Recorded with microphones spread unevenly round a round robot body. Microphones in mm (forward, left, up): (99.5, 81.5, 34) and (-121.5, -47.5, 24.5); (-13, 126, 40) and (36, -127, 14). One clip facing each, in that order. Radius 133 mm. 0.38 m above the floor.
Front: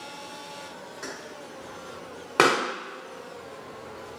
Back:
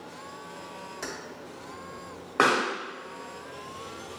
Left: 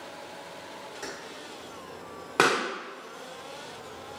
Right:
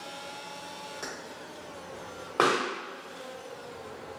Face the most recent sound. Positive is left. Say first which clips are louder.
# front 3 dB, left 1 dB
turn(degrees=50)